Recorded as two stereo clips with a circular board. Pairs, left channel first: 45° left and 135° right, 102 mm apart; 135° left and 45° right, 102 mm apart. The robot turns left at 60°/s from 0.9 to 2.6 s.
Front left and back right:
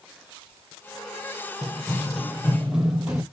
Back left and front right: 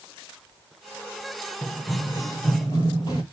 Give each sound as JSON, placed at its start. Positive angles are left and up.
{"t": 1.6, "sound": "running footsteps", "azimuth_deg": 155, "distance_m": 1.5}